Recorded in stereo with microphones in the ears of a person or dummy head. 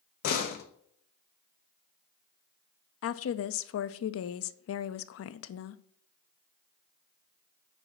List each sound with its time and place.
0.2 s a door slam: 40° left (ahead or behind), 0.9 m
3.0 s a woman speaking: 65° left (ahead or behind), 0.6 m